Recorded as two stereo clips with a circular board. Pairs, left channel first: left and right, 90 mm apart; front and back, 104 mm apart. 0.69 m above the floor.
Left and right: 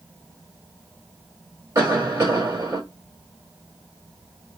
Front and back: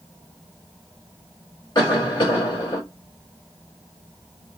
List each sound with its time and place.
1.8 s a cough: 45° right, 2.5 m